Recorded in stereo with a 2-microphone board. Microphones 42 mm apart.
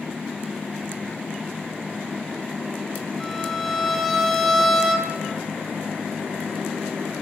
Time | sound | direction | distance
3.2 | a violin | 5° left (ahead or behind) | 7 m